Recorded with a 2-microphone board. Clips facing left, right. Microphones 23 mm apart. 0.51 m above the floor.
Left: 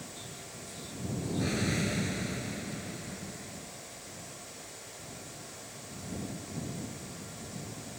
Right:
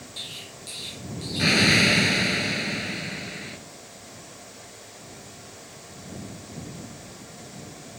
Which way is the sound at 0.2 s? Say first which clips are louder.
Right 8 dB; 80° right.